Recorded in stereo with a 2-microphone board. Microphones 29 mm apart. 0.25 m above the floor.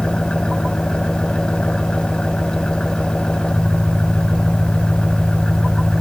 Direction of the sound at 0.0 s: 30° left (ahead or behind).